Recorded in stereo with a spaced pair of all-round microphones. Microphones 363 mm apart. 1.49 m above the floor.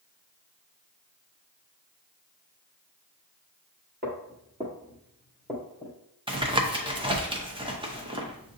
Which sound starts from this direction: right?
Footsteps, at 4.0 s.